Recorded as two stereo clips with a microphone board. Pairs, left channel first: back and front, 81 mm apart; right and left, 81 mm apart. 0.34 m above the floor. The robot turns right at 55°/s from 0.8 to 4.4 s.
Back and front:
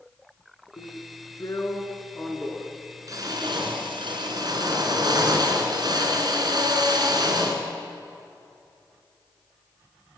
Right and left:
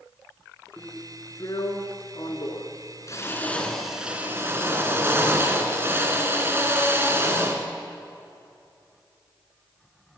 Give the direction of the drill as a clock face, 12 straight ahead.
6 o'clock.